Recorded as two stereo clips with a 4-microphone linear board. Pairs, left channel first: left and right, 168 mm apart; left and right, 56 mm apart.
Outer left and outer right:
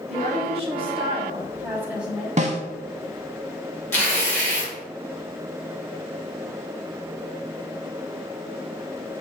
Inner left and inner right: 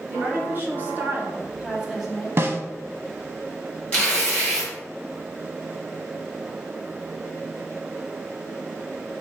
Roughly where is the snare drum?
Right.